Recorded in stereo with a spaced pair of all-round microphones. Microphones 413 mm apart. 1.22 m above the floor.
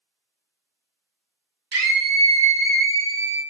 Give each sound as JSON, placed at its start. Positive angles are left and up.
{"t": 1.7, "sound": "a scream", "side_deg": -80, "distance_m": 1.4}